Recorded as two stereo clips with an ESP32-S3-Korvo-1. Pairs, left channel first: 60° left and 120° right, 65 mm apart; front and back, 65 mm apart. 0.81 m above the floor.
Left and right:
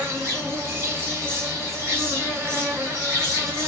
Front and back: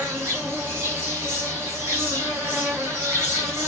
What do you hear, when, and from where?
0.0 s an insect: 145° right, 1.7 m